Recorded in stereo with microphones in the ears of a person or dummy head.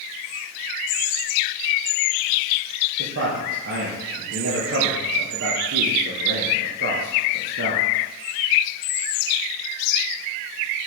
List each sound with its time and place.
3.0 s a man speaking: 65° right (ahead or behind), 1.2 m